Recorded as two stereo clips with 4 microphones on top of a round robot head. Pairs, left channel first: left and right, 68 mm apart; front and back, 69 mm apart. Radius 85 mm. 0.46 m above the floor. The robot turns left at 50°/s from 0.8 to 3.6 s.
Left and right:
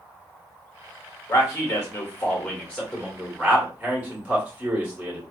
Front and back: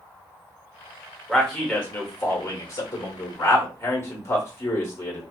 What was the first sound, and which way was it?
A man speaking, 90° left.